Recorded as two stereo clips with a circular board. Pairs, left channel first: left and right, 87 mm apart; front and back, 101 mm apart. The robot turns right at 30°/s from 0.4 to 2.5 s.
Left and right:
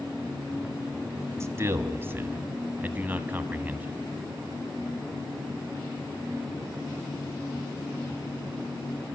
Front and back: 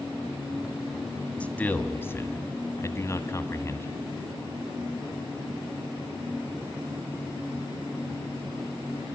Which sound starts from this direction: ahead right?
A man speaking, at 1.4 s.